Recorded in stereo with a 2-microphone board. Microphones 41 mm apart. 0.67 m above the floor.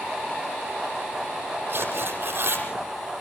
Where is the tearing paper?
60° right (ahead or behind), 6.5 m.